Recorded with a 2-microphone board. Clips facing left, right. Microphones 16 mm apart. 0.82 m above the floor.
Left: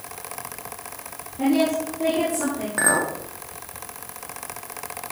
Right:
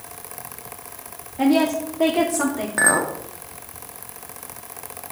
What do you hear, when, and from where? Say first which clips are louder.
1.4 s a woman speaking: right 2 dB; 40° right (ahead or behind), 1.5 m; by 2.7 s 65° right (ahead or behind), 2 m
2.8 s a clink: right 3 dB; 10° right (ahead or behind), 0.7 m